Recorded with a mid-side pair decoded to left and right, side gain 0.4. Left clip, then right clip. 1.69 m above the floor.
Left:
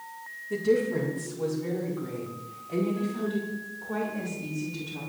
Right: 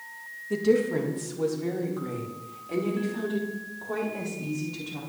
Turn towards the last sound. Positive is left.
turn(degrees=-75)